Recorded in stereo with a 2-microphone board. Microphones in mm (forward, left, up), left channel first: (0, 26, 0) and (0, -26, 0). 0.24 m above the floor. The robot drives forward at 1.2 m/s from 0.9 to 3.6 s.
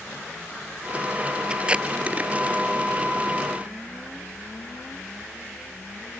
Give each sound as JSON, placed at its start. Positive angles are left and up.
{"t": 1.5, "sound": "tape being pulled", "side_deg": -20}